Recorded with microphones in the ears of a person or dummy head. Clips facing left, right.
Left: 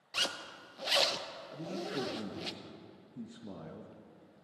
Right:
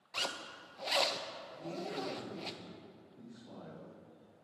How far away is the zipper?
About 0.8 m.